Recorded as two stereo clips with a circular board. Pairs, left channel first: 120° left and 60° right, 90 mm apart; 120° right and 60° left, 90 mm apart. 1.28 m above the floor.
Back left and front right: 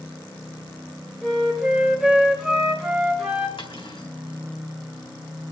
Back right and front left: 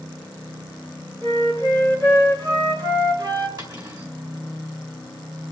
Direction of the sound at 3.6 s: 100° left.